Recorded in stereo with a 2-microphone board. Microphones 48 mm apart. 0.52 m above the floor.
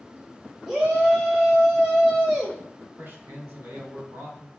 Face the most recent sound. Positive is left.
turn(degrees=-60)  # may be behind; listen again after turning